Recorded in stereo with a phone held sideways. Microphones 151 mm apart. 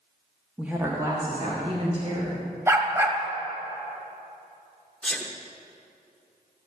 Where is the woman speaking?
5° right (ahead or behind), 1.3 m; by 2.4 s 40° right (ahead or behind), 3 m.